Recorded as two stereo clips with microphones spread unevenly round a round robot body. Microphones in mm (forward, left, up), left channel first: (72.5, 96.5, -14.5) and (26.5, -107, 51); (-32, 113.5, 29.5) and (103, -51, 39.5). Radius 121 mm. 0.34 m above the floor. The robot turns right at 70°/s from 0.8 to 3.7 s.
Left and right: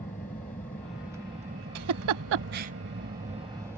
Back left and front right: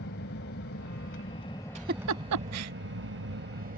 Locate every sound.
0.0 s an aircraft: 145° left; by 3.8 s 15° right
1.8 s a giggle: 115° right; by 2.7 s 50° right